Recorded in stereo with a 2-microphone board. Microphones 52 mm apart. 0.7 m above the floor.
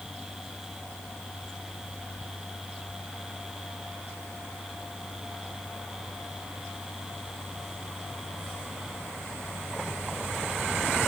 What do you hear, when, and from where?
Only background noise.